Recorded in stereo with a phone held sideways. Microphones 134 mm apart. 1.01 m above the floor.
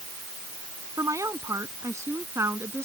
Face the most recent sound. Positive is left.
turn(degrees=-20)  # may be behind; listen again after turning